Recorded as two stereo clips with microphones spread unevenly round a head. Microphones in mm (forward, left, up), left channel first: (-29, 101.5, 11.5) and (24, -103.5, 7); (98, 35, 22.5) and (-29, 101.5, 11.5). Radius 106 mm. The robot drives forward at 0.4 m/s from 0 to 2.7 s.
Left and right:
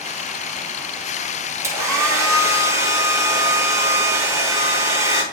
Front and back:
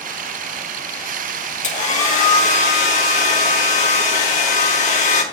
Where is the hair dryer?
Straight ahead, 6 m; by 5.2 s 5° left, 6 m.